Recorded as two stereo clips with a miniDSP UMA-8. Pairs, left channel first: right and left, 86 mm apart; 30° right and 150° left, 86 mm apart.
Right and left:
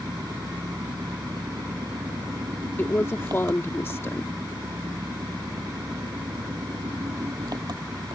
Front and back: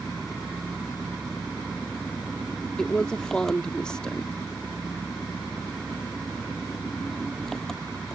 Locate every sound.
0.0 s an engine running: 55° left
2.8 s a woman speaking: 100° right